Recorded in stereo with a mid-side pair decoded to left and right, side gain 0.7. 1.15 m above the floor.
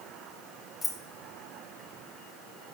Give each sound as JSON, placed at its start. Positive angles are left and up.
{"t": 0.8, "sound": "keys jangling", "azimuth_deg": 25, "distance_m": 1.2}